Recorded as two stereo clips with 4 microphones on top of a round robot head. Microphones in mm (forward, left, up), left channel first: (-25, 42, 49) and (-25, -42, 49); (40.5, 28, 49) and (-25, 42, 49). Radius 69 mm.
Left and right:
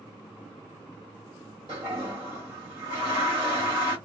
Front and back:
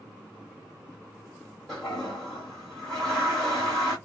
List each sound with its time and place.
1.7 s a toilet flushing: 100° right, 1.7 m